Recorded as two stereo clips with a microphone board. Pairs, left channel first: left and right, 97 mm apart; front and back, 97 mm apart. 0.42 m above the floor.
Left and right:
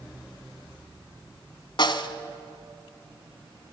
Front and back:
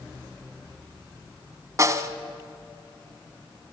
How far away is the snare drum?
About 1.1 m.